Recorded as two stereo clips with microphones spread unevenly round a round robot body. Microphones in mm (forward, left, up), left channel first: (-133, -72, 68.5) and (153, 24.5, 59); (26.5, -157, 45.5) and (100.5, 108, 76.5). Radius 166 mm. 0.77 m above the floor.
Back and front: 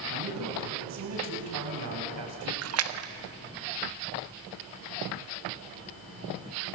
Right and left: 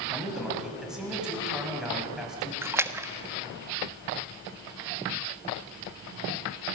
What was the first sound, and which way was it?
A man speaking, 15° right.